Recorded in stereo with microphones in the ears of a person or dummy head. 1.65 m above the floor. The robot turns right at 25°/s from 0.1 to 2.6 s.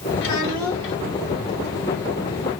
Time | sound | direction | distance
0.2 | a child speaking | 65° left (ahead or behind) | 1.7 m